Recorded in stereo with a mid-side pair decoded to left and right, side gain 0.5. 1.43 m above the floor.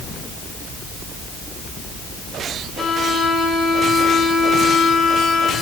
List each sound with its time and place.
2.8 s a violin: 45° left, 4.5 m